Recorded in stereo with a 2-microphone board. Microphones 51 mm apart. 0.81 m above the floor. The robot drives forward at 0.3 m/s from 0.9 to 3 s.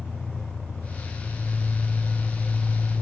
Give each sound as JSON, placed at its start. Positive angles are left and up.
{"t": 0.0, "sound": "an engine running", "side_deg": 40, "distance_m": 2.0}